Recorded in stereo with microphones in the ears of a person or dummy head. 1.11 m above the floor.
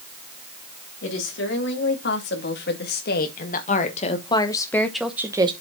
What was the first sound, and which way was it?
A woman speaking, 65° left (ahead or behind).